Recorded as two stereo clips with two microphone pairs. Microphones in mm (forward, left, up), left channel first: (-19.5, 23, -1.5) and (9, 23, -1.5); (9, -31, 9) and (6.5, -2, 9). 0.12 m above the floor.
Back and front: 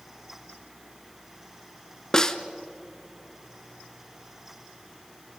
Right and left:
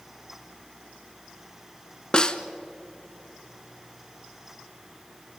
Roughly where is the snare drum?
Behind right.